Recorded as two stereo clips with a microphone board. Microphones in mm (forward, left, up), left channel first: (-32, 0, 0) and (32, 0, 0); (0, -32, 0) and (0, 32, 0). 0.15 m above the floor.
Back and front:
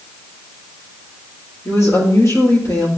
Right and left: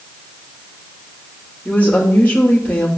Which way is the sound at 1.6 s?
150° right.